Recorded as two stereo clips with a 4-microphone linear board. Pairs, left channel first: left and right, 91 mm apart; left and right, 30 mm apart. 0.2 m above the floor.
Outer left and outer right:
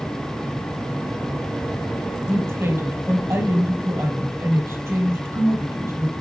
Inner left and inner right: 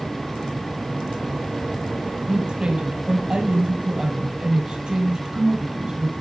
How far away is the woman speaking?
About 4 m.